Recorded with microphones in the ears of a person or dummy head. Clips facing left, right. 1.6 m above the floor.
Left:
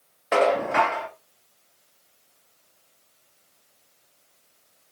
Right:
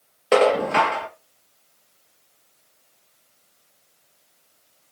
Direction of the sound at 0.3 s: 45° right (ahead or behind).